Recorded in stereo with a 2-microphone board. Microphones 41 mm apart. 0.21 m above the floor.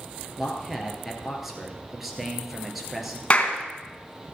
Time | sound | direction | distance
0.4 | a man speaking | 5° right (ahead or behind) | 3 m
3.3 | a clap | 30° left (ahead or behind) | 2 m